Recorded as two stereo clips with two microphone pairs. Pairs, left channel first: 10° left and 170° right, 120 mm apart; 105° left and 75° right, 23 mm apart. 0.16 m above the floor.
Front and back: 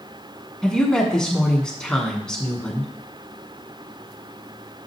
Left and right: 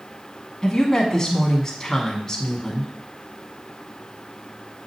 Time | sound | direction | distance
0.6 | a woman speaking | 80° left | 1.0 m